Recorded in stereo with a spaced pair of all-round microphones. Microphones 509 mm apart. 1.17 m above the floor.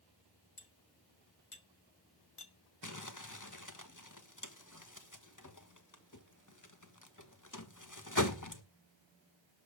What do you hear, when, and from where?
0.6 s cutlery clinking: 75° left (ahead or behind), 1.6 m
2.8 s crumpling: 35° left (ahead or behind), 1.4 m